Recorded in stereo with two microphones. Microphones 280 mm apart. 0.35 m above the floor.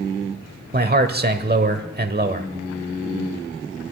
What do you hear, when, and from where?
0.7 s a man speaking: 35° right (ahead or behind), 1.1 m